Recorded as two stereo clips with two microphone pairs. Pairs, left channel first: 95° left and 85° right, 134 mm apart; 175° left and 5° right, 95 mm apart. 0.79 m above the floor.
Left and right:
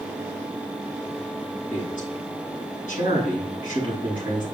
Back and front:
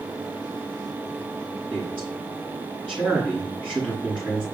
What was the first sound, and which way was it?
A man speaking, 95° left.